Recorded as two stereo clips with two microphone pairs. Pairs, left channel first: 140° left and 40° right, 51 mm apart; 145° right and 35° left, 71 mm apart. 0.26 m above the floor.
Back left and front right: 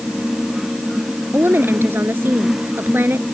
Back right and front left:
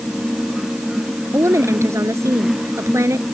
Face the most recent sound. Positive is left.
turn(degrees=-5)